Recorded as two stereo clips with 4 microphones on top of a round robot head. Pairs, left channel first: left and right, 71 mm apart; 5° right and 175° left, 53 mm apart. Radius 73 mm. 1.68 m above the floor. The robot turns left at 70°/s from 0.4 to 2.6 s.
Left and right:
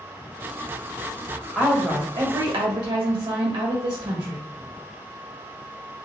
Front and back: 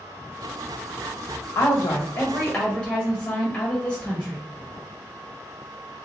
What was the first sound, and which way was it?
A woman speaking, 5° right.